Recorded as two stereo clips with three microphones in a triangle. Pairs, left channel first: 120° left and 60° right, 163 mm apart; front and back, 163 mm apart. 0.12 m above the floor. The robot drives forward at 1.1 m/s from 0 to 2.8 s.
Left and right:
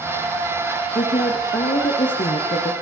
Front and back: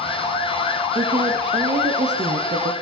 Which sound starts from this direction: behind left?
A woman speaking, at 0.9 s.